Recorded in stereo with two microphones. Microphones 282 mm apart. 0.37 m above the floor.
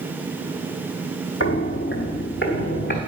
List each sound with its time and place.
1.4 s footsteps: 45° left (ahead or behind), 0.7 m; by 3.0 s 35° left (ahead or behind), 1.6 m